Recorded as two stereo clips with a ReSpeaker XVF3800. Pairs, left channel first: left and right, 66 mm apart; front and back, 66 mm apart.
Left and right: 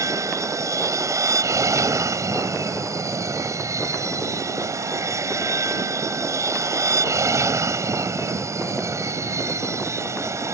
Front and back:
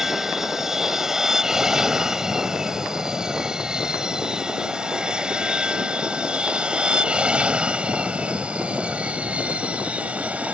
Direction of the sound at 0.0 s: 95° right.